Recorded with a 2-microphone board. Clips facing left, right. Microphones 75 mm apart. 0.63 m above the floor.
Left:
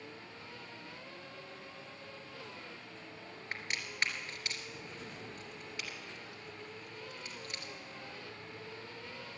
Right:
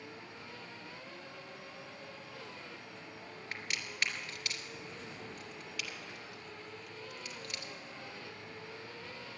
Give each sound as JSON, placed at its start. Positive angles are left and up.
{"t": 3.5, "sound": "a crack", "side_deg": 25, "distance_m": 2.5}